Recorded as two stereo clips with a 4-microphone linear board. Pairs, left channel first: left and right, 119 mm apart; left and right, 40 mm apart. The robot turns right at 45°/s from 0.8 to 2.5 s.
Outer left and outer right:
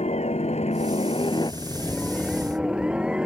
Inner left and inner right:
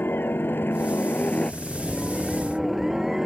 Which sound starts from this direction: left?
A helicopter, at 0.0 s.